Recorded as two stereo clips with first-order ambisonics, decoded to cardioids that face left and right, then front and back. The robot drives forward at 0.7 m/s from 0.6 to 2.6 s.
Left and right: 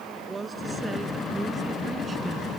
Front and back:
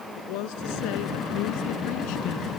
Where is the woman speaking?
15° right.